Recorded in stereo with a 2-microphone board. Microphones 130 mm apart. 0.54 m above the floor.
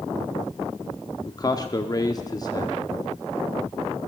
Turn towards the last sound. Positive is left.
turn(degrees=30)  # may be behind; listen again after turning